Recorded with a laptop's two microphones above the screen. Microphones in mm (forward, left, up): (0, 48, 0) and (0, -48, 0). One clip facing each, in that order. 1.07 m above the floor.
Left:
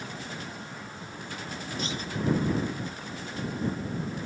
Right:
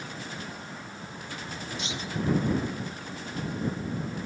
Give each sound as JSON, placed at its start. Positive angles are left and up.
{"t": 1.8, "sound": "a clunk", "side_deg": 40}